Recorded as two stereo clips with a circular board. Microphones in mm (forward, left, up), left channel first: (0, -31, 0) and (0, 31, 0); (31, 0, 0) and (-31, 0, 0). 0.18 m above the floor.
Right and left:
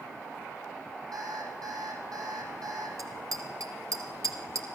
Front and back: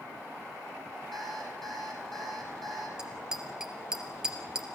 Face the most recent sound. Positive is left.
turn(degrees=100)